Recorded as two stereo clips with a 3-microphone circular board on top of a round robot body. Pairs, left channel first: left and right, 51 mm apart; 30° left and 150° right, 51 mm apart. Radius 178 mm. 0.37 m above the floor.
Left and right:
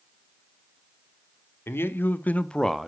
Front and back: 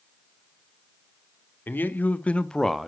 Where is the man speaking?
70° left, 1.3 m; by 2.9 s 120° right, 0.8 m.